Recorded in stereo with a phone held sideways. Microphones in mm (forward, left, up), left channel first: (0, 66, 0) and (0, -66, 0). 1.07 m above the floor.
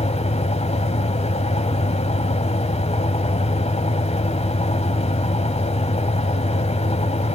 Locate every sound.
0.0 s a fan: 50° left (ahead or behind), 1.6 m